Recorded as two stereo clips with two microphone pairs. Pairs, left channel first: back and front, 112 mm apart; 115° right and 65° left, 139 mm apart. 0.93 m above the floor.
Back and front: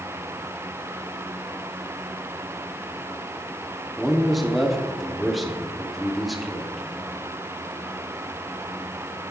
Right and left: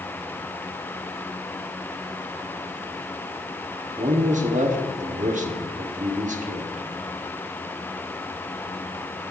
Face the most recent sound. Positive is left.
turn(degrees=90)